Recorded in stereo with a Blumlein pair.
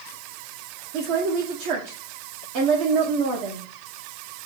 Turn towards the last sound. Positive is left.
turn(degrees=-45)